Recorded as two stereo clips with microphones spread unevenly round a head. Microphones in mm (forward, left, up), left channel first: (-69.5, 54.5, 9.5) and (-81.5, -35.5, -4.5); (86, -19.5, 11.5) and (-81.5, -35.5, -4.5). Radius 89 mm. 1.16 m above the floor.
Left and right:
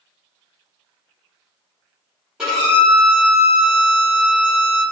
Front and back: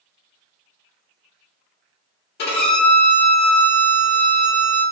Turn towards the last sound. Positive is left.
turn(degrees=-10)